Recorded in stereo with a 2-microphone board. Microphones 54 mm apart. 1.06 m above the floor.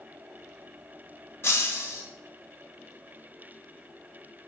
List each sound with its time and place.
1.4 s breaking glass: 55° left (ahead or behind), 1.6 m